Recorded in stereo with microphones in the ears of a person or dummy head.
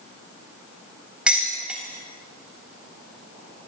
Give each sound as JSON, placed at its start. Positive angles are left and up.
{"t": 1.3, "sound": "dishes clattering", "side_deg": 0, "distance_m": 3.0}